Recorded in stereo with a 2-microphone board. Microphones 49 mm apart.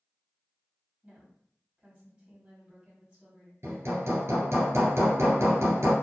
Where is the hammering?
70° right (ahead or behind), 1.7 m.